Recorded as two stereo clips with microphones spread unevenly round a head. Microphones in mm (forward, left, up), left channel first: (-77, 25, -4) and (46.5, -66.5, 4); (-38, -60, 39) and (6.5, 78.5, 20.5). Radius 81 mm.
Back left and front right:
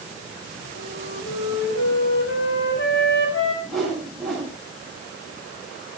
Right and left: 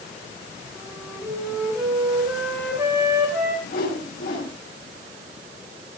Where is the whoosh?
125° right, 6 m.